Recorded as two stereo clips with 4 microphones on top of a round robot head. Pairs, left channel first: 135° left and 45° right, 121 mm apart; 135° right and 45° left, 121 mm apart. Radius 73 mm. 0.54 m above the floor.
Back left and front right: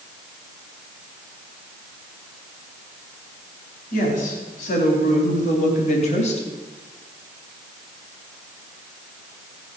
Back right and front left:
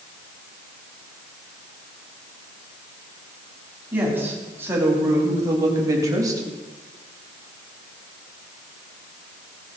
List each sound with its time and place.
3.9 s a woman speaking: 120° left, 4 m; by 6.5 s 105° left, 3 m